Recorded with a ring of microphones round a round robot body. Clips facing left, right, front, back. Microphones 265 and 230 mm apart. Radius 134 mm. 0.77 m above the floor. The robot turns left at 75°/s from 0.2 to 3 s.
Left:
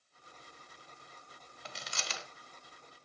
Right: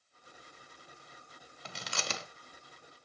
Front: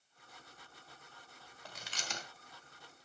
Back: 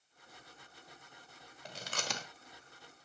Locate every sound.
1.6 s chewing: 105° right, 1.2 m; by 2.3 s 150° right, 1.2 m